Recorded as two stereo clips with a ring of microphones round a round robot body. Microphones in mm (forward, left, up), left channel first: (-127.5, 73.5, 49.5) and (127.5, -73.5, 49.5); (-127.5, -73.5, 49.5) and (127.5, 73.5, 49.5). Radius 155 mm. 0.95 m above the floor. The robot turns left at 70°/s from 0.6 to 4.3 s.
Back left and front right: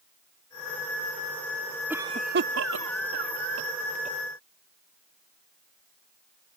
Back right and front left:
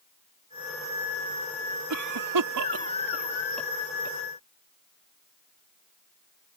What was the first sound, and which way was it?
A cough, 55° left.